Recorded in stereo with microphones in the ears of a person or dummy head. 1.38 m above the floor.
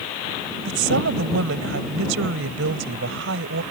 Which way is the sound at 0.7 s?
70° right (ahead or behind).